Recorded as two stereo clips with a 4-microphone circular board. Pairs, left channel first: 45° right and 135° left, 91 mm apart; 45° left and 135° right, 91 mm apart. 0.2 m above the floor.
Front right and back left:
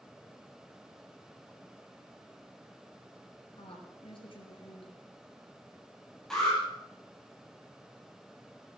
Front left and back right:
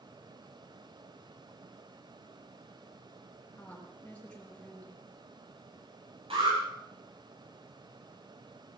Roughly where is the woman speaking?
Ahead right.